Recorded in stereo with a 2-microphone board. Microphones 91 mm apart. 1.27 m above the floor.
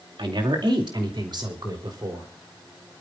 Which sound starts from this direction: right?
A woman speaking, at 0.2 s.